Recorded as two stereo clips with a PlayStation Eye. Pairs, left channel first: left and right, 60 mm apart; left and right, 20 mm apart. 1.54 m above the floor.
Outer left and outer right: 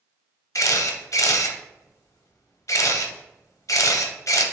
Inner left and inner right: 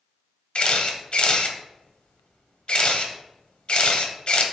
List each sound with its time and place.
0.6 s a camera shutter: 60° left (ahead or behind), 0.9 m